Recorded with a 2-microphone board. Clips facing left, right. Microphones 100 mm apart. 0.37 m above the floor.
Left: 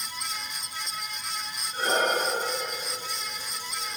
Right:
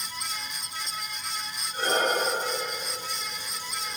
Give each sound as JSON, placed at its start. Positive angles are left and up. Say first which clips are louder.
{"t": 1.7, "sound": "breathing", "louder": "even", "side_deg": 15, "distance_m": 5.0}